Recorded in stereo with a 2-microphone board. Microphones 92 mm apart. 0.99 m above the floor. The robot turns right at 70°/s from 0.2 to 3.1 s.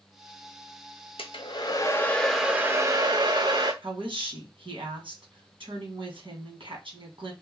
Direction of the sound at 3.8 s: 65° right (ahead or behind).